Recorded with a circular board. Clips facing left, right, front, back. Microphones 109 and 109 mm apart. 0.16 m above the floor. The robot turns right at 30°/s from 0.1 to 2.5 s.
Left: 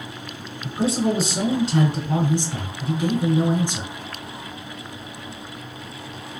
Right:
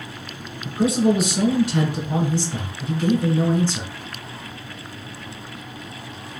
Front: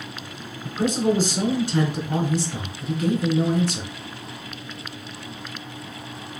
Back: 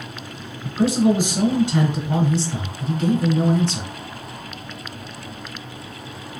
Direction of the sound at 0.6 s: 100° left.